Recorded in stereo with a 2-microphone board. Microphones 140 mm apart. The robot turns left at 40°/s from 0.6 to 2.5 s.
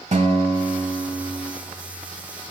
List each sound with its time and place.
0.1 s a guitar: 90° right, 1.0 m; by 1.5 s 125° right, 1.0 m